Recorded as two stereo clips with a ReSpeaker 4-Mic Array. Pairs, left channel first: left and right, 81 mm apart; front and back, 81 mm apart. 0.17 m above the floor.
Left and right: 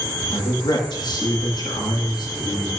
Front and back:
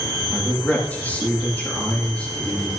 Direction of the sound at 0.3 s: 70° left.